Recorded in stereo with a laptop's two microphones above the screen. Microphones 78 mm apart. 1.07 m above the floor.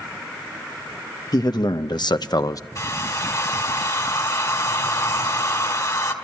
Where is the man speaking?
60° left (ahead or behind), 0.9 m; by 2.6 s 45° left (ahead or behind), 0.6 m.